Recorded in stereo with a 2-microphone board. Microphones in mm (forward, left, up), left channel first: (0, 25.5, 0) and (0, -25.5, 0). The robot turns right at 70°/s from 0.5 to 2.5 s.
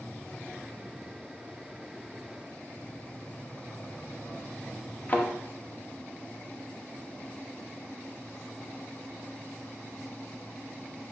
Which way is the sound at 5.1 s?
30° left (ahead or behind).